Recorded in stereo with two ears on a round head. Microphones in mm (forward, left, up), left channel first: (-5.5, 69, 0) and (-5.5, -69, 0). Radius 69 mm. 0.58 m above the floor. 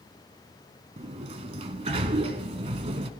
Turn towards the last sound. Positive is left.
turn(degrees=-40)  # may be behind; listen again after turning